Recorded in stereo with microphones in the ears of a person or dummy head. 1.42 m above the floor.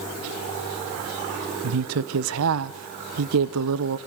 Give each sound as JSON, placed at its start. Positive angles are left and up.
{"t": 1.6, "sound": "a woman speaking", "side_deg": -80, "distance_m": 0.7}